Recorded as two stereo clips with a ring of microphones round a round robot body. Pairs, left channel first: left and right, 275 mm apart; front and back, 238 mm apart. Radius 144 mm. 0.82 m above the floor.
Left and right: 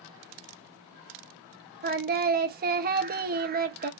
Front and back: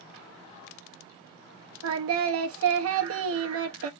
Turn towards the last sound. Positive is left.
turn(degrees=-145)